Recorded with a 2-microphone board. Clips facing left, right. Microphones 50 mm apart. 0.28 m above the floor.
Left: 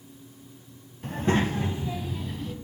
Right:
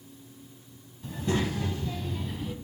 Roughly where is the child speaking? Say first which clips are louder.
Left 4 dB; left.